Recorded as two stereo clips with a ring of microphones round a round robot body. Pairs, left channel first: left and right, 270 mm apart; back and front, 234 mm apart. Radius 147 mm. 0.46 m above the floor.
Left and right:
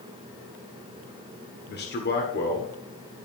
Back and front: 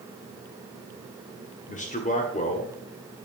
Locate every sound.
1.7 s a man speaking: 130° left, 1.8 m